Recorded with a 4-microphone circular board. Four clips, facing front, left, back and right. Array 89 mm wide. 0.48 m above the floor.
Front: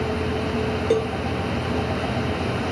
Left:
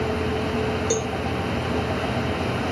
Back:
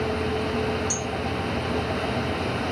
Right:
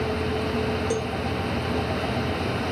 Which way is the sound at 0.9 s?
10° left.